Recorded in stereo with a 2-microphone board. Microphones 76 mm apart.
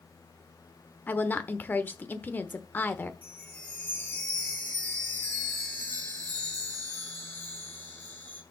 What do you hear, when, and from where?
1.1 s a woman speaking: 25° left (ahead or behind), 0.9 m
3.2 s a chime: 25° left (ahead or behind), 2 m